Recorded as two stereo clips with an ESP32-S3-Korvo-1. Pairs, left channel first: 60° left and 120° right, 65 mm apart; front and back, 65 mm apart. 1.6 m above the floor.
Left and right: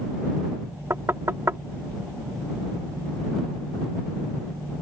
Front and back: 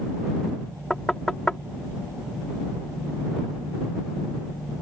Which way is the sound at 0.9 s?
80° right.